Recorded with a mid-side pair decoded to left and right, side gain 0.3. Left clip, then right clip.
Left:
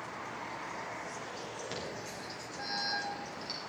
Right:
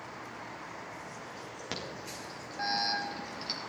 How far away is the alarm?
About 2.5 m.